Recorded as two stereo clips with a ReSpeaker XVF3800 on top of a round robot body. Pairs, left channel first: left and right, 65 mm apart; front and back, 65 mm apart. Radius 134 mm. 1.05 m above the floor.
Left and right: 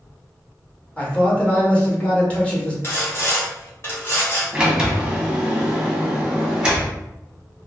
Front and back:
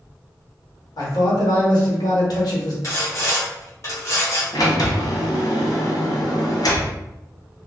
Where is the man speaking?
20° left, 1.6 m.